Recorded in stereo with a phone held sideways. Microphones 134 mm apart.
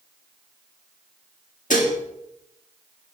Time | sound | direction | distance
1.7 | dishes clattering | 70° left (ahead or behind) | 1.9 m